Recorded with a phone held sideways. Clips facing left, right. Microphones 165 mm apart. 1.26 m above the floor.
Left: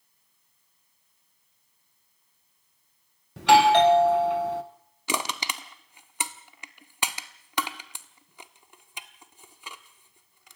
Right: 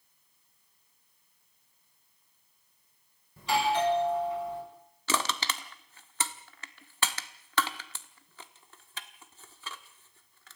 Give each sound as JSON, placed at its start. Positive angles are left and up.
{"t": 3.4, "sound": "a doorbell", "side_deg": 70, "distance_m": 1.3}
{"t": 5.1, "sound": "crushing", "side_deg": 15, "distance_m": 1.1}